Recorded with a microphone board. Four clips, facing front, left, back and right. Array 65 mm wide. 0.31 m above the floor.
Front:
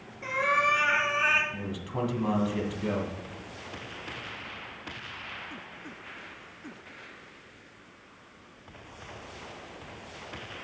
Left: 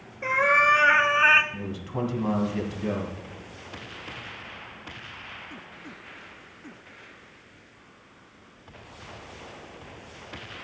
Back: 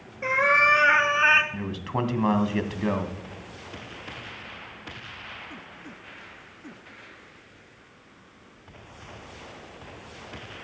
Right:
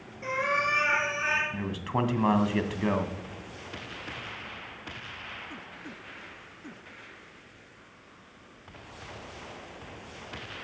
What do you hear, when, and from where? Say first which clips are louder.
0.2 s a cat meowing: left 7 dB, back 5 dB; 140° left, 1.5 m; by 1.4 s 120° left, 1.0 m
1.5 s a man speaking: right 2 dB, back 4 dB; 135° right, 1.9 m